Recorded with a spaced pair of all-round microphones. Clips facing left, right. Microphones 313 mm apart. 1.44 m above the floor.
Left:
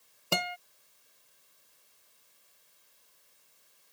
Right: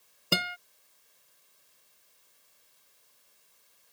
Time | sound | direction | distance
0.3 | a guitar | 20° right (ahead or behind) | ?